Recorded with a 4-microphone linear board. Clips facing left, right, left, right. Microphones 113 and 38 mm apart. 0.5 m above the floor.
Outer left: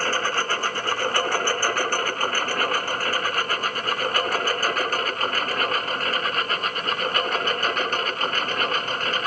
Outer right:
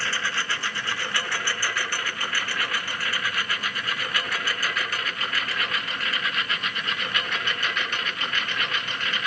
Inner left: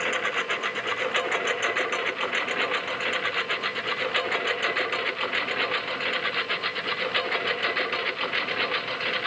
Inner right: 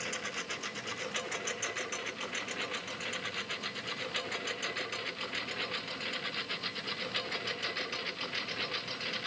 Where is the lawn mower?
45° left (ahead or behind); by 9.3 s 40° left (ahead or behind).